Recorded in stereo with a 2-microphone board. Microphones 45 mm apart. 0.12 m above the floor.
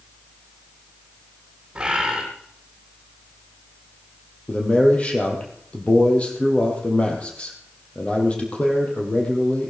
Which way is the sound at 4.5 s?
30° left (ahead or behind).